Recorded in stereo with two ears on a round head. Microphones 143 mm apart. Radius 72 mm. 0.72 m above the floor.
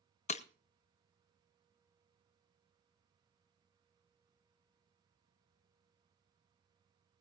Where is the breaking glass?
45° left (ahead or behind), 0.7 m.